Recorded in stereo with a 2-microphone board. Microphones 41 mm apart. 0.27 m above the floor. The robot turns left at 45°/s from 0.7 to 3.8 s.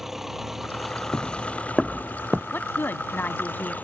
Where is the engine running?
170° right; by 3.9 s 50° left.